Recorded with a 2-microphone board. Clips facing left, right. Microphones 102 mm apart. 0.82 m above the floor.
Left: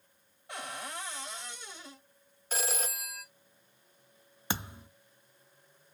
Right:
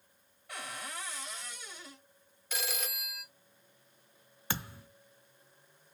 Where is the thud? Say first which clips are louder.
Left 2 dB; 20° left (ahead or behind), 0.5 m.